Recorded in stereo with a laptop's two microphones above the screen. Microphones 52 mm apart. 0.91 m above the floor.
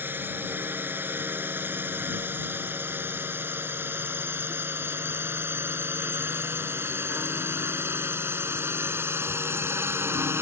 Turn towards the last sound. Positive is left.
turn(degrees=-55)  # may be behind; listen again after turning